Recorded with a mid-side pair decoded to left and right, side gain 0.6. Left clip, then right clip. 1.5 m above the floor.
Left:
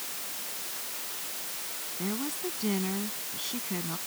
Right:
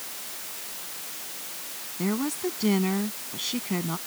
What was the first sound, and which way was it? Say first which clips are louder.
A woman speaking: right 6 dB; 35° right.